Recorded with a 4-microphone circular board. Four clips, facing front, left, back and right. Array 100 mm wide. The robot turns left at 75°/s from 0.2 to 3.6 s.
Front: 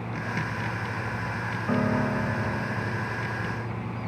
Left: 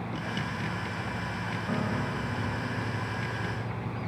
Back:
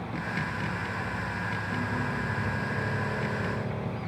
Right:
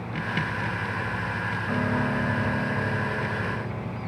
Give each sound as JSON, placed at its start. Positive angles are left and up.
{"t": 1.7, "sound": "a piano", "azimuth_deg": -5, "distance_m": 1.6}